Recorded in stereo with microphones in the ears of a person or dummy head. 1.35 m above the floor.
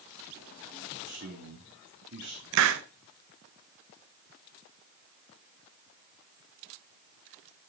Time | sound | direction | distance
1.1 | a man speaking | 60° right (ahead or behind) | 2.5 m
2.5 | a hiss | 65° right (ahead or behind) | 0.9 m